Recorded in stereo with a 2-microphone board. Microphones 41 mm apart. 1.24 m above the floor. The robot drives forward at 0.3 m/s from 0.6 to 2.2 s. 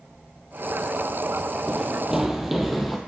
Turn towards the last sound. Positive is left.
turn(degrees=-5)  # may be behind; listen again after turning